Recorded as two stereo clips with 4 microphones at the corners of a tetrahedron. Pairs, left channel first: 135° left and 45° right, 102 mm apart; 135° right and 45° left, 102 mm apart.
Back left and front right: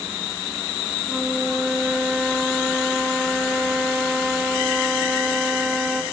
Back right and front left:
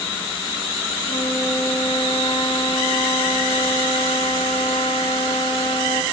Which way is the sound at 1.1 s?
130° right.